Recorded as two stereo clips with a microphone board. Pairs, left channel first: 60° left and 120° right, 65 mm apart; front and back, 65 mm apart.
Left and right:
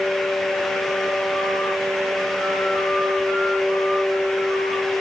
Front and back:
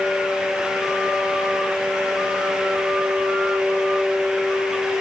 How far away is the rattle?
I don't hear a rattle.